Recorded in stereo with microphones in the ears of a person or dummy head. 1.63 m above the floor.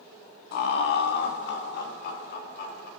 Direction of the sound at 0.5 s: 70° left (ahead or behind).